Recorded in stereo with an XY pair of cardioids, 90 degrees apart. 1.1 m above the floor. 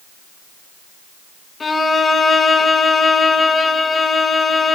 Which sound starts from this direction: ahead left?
A violin, at 1.6 s.